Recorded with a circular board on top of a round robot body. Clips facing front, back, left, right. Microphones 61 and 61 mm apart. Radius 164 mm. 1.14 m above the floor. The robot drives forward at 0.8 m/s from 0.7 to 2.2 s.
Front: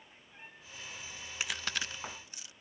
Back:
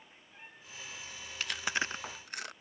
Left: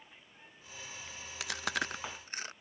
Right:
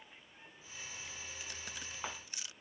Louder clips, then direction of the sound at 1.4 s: Back 3 dB, left 17 dB; 75° left.